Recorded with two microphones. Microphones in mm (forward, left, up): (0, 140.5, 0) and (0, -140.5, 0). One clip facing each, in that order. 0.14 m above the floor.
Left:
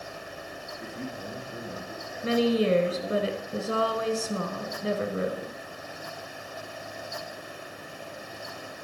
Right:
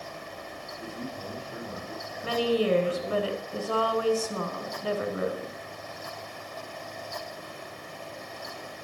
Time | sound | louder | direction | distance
0.8 | a man speaking | even | 5° right (ahead or behind) | 4.5 m
2.2 | a woman speaking | left 2 dB | 25° left (ahead or behind) | 1.1 m